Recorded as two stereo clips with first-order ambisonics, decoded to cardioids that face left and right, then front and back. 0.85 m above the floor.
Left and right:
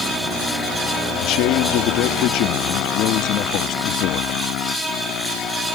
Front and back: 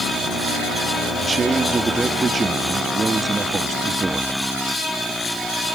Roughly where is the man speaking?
Left.